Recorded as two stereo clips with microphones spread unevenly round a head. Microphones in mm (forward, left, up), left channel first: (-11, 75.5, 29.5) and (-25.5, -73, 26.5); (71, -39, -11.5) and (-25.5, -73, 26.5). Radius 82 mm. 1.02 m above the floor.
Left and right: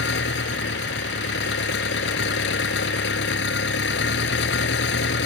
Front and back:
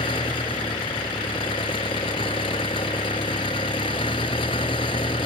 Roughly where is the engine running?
Left.